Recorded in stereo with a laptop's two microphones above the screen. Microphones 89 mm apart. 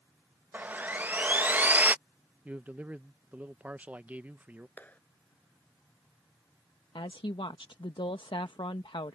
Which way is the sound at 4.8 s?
20° left (ahead or behind).